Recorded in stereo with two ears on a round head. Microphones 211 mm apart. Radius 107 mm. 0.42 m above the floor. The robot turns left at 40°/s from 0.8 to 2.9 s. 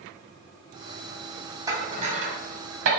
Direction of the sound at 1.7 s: 15° right (ahead or behind).